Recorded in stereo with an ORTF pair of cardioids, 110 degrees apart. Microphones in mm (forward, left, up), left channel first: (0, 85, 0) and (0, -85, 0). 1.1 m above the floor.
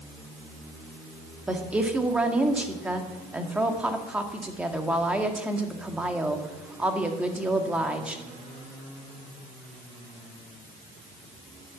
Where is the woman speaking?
5° right, 1.8 m.